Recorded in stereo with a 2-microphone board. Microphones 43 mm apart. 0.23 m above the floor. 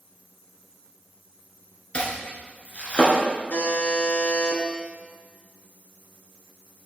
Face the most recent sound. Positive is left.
turn(degrees=75)  # may be behind; listen again after turning